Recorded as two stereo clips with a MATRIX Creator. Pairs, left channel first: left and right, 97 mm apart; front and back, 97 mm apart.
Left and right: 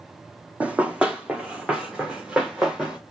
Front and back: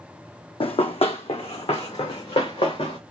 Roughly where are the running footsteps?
Ahead.